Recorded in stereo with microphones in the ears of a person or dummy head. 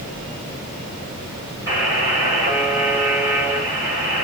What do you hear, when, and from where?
1.7 s a buzzer: 15° right (ahead or behind), 1.9 m